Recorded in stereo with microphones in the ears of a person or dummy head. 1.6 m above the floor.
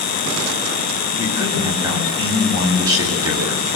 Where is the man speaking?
20° right (ahead or behind), 8.5 m.